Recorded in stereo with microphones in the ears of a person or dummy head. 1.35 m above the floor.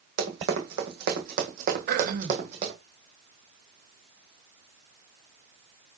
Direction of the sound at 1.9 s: 50° right (ahead or behind).